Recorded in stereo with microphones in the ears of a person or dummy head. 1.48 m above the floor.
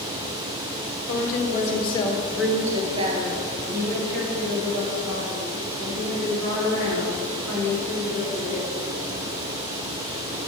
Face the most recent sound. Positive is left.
turn(degrees=-75)  # may be behind; listen again after turning